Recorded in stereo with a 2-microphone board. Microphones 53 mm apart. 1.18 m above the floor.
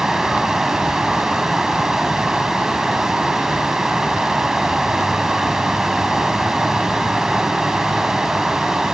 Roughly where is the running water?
Centre.